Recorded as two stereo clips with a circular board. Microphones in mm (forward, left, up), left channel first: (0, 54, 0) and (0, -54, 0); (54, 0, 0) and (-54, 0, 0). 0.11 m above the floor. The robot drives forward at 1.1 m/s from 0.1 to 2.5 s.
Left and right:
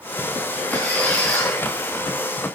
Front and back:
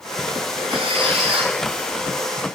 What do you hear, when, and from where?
0.7 s a squeak: 165° left, 7 m